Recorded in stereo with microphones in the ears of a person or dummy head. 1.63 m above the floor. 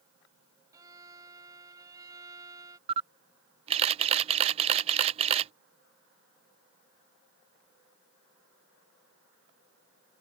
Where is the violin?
15° right (ahead or behind).